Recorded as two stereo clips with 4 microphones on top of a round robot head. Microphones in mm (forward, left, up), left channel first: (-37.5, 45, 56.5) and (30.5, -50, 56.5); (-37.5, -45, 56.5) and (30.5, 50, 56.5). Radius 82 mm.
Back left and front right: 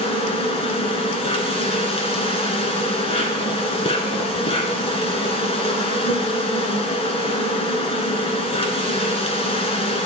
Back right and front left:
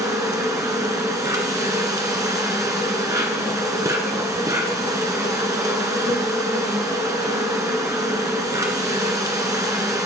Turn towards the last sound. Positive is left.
turn(degrees=110)